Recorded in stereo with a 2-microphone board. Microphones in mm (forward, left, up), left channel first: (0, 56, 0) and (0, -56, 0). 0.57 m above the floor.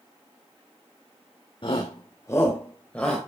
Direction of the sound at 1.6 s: 45° left (ahead or behind).